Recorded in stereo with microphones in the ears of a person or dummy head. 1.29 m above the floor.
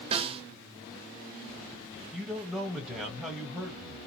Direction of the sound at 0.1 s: 30° right (ahead or behind).